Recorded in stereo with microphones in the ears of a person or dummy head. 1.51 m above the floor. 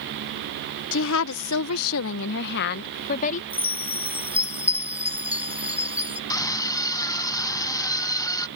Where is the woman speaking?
65° left (ahead or behind); by 3.4 s 40° left (ahead or behind).